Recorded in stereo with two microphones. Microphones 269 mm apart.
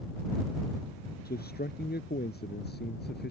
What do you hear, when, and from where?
1.2 s a man speaking: 35° left (ahead or behind); by 3.3 s 40° left (ahead or behind)